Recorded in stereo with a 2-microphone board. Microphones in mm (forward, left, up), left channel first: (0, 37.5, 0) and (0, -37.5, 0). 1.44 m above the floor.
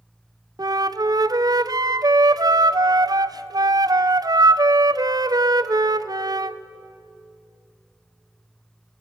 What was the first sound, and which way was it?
A flute, 55° right (ahead or behind).